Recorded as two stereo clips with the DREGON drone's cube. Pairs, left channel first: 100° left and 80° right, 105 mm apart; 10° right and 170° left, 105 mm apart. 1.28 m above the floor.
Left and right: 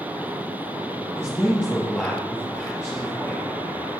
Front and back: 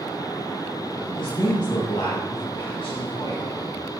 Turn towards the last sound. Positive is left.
turn(degrees=30)